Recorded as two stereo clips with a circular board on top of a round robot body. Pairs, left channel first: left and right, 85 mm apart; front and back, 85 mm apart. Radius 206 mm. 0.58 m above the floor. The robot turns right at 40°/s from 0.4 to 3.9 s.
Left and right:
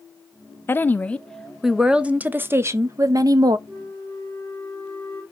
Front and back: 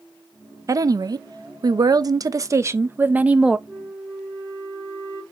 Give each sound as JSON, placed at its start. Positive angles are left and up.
{"t": 0.7, "sound": "a woman speaking", "azimuth_deg": 145, "distance_m": 0.7}
{"t": 3.7, "sound": "a flute", "azimuth_deg": -70, "distance_m": 2.5}